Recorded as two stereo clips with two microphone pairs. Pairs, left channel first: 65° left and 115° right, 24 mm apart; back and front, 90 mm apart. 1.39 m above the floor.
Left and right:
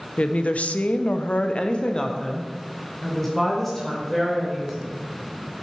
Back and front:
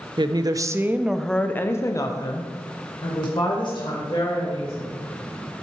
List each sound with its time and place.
0.2 s a woman speaking: 35° left, 0.6 m; by 4.9 s 150° left, 2 m